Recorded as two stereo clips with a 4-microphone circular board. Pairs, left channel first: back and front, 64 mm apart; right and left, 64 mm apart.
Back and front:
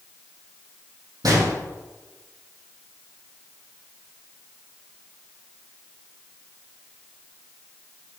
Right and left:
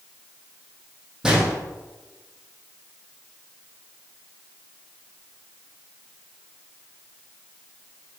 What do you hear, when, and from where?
1.2 s a gunshot: 10° left, 4.5 m